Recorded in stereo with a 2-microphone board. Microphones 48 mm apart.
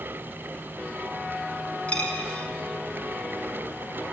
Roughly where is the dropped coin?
Left.